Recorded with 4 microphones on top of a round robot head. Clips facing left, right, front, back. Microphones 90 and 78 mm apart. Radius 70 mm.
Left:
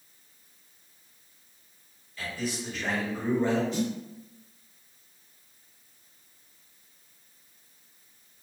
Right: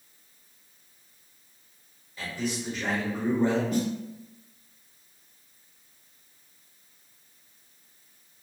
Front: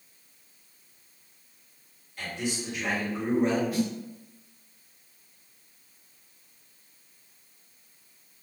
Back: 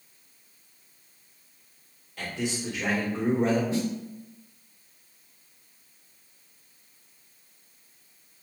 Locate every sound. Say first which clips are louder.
2.2 s a man speaking: right 2 dB, back 1 dB; 165° right, 1.2 m
3.7 s a snare drum: right 2 dB, even; 120° right, 0.7 m